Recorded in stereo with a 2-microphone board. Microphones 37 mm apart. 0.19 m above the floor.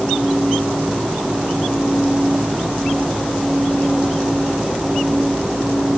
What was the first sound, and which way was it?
Only background noise.